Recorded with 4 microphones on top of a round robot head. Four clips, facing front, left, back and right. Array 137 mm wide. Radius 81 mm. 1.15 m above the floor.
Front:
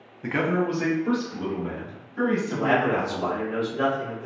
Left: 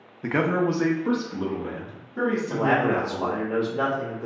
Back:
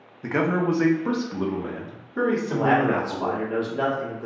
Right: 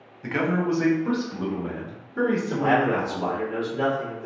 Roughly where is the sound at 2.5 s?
Behind left.